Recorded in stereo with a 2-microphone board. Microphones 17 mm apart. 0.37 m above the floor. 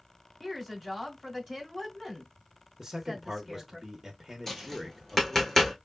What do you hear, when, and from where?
0.4 s a woman speaking: centre (ahead or behind), 2.5 m
2.8 s a man speaking: 20° right (ahead or behind), 0.8 m
4.5 s tapping: 20° left (ahead or behind), 3 m